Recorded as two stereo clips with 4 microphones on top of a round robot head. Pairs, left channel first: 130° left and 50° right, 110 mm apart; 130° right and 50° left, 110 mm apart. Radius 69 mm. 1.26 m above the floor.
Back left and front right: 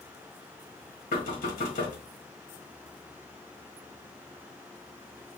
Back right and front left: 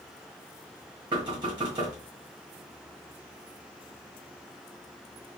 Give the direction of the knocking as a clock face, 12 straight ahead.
8 o'clock.